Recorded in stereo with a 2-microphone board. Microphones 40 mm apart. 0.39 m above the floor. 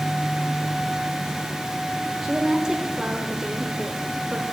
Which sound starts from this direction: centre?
A woman speaking, at 2.2 s.